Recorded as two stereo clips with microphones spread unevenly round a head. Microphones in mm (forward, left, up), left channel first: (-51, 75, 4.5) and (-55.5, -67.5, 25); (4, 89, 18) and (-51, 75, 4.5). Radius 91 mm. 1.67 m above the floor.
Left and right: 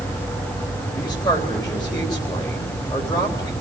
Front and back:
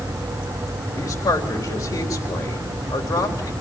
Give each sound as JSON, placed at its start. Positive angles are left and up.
{"t": 1.0, "sound": "a man speaking", "azimuth_deg": 20, "distance_m": 3.5}